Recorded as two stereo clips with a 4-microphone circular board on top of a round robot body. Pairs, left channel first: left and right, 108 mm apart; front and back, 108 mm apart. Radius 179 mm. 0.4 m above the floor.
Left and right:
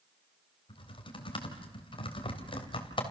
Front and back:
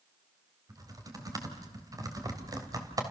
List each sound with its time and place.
0.7 s typing on a keyboard: 125° left, 3 m